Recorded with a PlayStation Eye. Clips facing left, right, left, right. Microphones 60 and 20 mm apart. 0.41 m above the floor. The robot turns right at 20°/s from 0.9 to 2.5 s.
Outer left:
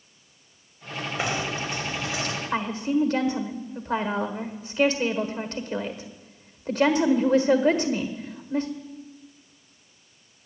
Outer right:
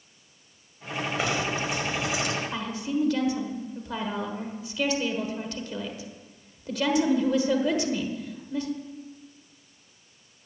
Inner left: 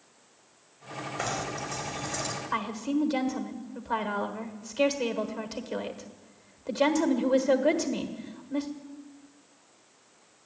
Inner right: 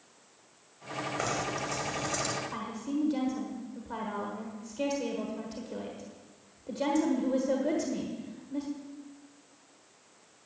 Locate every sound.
1.2 s knocking: 5° left (ahead or behind), 1.6 m; by 2.4 s 15° right (ahead or behind), 1.6 m
2.5 s a woman speaking: 40° left (ahead or behind), 1.4 m